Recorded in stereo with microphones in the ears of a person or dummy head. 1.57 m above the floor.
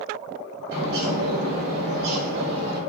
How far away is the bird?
About 1.4 m.